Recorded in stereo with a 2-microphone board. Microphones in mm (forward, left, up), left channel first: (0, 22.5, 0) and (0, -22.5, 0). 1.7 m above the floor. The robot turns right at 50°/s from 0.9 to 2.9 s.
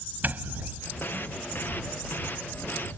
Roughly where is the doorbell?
Right.